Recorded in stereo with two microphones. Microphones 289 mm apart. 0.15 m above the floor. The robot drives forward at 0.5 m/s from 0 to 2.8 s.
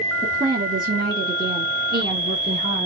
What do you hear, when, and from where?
0.2 s a woman speaking: 25° right (ahead or behind), 2.5 m; by 2.9 s 35° right (ahead or behind), 2 m